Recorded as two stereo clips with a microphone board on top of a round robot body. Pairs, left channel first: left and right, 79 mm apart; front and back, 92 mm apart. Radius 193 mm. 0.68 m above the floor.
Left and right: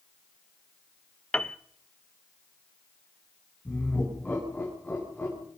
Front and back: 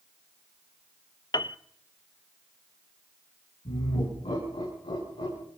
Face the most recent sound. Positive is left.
turn(degrees=15)